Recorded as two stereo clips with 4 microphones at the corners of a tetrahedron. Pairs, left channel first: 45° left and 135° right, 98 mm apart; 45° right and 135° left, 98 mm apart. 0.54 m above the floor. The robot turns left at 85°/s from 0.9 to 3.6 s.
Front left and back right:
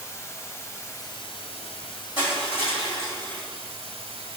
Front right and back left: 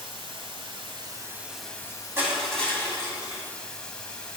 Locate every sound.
0.0 s running water: 105° left, 1.0 m; by 4.4 s 125° right, 1.0 m
2.2 s crushing: 70° left, 3 m; by 3.4 s 35° right, 3 m